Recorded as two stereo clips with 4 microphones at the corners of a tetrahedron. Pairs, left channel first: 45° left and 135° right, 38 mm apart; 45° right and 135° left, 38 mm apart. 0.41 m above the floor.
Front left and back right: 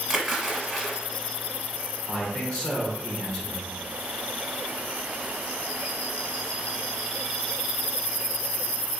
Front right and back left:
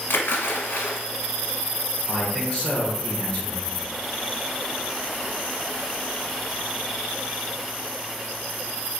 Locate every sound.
0.1 s a splash: 55° right, 0.6 m
2.1 s a man speaking: straight ahead, 1.0 m